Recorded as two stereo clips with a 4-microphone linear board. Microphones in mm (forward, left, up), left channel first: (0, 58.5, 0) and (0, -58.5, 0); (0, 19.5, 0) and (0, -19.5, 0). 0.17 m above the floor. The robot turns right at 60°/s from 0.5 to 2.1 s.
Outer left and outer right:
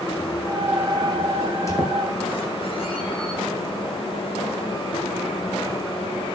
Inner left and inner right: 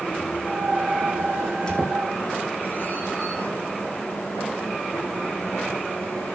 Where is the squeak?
10° left (ahead or behind), 4.5 m; by 3.4 s 50° left (ahead or behind), 4.5 m.